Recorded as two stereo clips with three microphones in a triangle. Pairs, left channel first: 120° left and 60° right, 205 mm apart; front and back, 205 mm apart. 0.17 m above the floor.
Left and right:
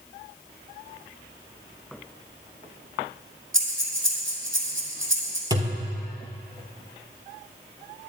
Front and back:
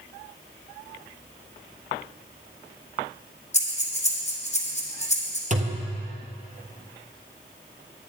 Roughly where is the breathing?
Ahead right.